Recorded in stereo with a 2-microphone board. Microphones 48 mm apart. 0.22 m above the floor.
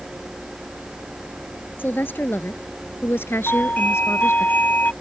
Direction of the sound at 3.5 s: 35° left (ahead or behind).